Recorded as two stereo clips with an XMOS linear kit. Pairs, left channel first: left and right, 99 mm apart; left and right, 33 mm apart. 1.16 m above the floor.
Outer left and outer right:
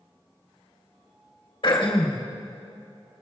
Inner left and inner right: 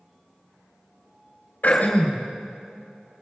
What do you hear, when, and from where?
1.6 s throat clearing: 65° left (ahead or behind), 3 m